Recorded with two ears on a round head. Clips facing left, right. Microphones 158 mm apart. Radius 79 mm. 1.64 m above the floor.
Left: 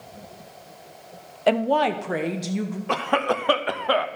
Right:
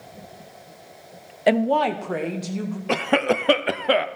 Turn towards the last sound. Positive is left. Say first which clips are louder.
# right 3 dB
turn(degrees=-25)  # may be behind; listen again after turning